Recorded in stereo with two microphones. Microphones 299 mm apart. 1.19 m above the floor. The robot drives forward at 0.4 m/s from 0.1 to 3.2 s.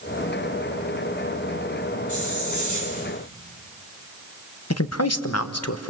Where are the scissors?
I don't hear scissors.